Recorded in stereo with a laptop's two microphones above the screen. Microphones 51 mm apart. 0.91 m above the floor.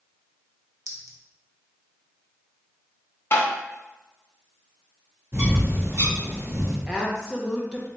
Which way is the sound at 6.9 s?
15° right (ahead or behind).